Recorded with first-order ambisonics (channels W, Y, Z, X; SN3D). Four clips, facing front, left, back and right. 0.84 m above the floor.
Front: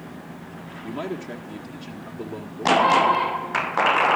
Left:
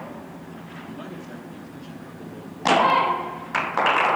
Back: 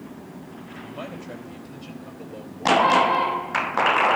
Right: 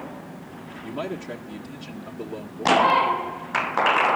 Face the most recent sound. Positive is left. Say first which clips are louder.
# right 9 dB, front 6 dB
turn(degrees=-40)